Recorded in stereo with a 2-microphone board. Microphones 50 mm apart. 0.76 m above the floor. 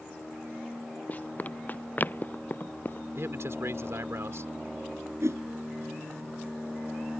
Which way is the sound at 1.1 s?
35° left (ahead or behind).